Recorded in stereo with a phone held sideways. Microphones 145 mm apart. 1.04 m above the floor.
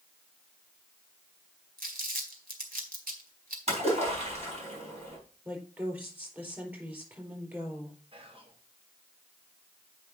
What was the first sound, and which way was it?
Crumpling, 75° right (ahead or behind).